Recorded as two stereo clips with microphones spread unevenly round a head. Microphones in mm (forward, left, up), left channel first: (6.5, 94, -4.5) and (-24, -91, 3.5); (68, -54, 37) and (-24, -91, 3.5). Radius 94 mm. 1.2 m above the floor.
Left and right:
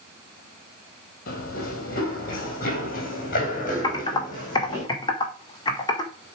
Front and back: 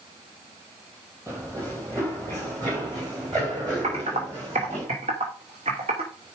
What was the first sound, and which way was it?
Running footsteps, 120° left.